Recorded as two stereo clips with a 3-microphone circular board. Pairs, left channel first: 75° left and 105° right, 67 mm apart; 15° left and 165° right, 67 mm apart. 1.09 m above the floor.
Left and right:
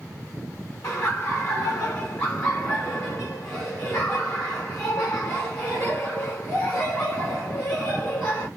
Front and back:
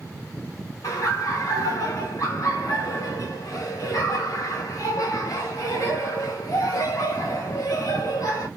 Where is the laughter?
35° left, 1.0 m.